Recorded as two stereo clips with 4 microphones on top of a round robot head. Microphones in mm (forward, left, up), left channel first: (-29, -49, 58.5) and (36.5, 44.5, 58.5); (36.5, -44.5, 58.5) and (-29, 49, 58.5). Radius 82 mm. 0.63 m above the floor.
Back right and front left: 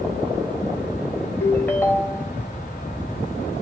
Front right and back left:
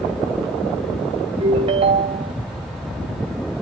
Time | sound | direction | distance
1.4 | a ringtone | 165° left | 0.7 m